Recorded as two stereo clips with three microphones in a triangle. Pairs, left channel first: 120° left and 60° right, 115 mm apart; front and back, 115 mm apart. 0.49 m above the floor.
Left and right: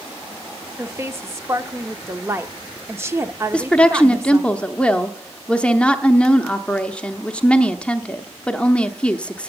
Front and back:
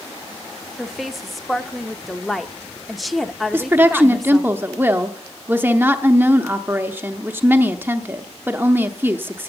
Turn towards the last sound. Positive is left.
turn(degrees=175)